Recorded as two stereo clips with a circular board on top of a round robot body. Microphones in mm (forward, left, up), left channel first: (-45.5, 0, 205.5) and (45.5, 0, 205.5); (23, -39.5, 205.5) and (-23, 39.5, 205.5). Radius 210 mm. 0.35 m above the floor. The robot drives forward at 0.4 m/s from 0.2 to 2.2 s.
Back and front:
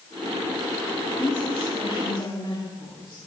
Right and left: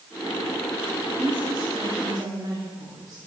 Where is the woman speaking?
150° left, 4.5 m.